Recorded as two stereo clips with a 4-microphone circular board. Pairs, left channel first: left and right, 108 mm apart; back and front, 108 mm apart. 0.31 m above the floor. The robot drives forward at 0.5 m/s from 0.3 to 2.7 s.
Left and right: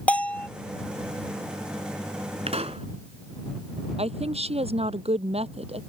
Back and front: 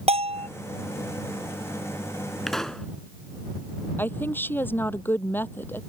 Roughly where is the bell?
Ahead.